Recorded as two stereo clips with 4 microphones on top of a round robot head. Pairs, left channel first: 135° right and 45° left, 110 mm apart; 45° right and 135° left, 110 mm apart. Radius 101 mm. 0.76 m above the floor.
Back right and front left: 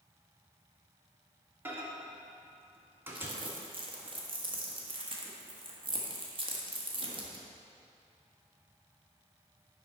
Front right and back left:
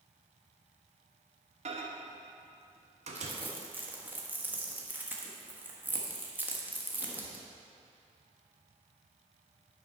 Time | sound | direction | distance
1.6 | a microwave | 120° left | 1.2 m
3.1 | crumpling | 65° left | 1.5 m